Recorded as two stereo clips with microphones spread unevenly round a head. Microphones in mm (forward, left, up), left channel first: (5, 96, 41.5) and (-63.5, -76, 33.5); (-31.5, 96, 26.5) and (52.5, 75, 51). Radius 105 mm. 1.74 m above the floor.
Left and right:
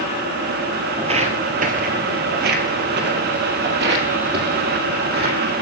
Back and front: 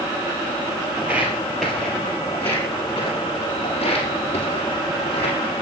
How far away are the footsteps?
About 2 m.